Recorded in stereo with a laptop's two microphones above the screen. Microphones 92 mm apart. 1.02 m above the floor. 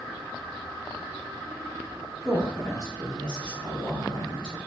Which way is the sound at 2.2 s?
5° left (ahead or behind).